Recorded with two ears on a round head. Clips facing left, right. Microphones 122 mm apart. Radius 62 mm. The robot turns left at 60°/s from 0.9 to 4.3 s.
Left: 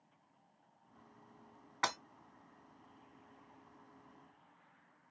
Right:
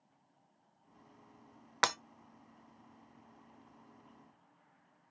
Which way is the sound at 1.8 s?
70° right (ahead or behind).